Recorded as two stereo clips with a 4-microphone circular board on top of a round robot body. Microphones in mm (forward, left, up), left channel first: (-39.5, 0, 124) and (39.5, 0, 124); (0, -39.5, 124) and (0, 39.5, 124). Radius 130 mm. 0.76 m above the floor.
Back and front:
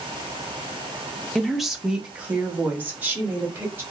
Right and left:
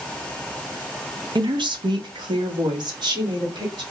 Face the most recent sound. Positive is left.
turn(degrees=65)